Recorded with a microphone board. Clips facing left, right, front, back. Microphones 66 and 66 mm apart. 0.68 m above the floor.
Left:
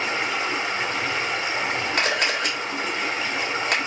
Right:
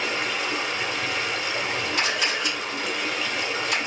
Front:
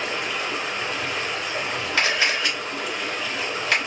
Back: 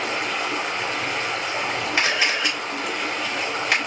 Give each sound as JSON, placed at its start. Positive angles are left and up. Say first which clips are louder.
{"t": 0.0, "sound": "running water", "louder": "left 2 dB, back 2 dB", "azimuth_deg": 145, "distance_m": 2.0}
{"t": 2.0, "sound": "a camera shutter", "louder": "left 3 dB, front 1 dB", "azimuth_deg": 110, "distance_m": 2.5}